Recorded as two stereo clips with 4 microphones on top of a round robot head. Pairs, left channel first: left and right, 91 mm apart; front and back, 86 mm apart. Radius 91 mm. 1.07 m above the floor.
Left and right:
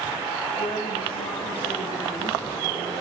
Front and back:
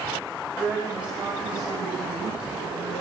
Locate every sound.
0.6 s a woman speaking: 105° left, 4.5 m